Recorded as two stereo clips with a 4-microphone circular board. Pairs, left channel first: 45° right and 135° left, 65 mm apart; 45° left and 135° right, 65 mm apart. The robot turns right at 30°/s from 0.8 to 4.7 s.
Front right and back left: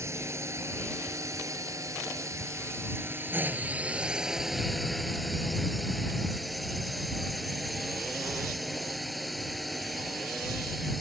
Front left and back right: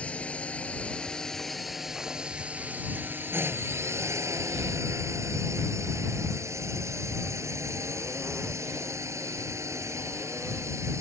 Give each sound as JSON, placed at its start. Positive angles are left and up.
{"t": 0.0, "sound": "a drone", "azimuth_deg": 110}